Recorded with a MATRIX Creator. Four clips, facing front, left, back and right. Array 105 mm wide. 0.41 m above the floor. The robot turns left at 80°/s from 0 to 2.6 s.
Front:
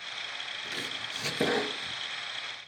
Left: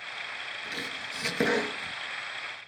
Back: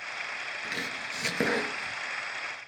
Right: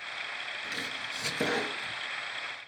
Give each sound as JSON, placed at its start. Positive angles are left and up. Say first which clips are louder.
{"t": 0.6, "sound": "chopping", "louder": "left 1 dB, back 3 dB", "azimuth_deg": -165, "distance_m": 1.3}